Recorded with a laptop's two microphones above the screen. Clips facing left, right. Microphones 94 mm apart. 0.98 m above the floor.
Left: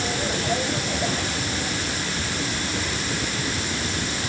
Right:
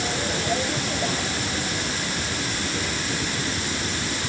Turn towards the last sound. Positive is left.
No sound to turn to.